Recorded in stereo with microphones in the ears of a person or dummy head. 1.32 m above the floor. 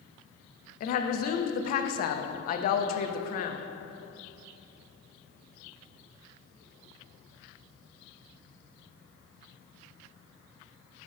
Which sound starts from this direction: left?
A woman speaking, at 0.8 s.